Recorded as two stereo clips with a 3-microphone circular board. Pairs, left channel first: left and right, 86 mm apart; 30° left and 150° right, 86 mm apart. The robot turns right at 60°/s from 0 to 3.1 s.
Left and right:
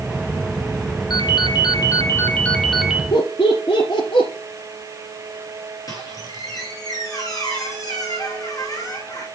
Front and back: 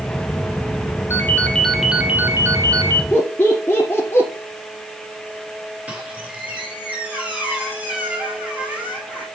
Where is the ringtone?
80° left, 1.7 m; by 3.0 s 165° right, 1.7 m.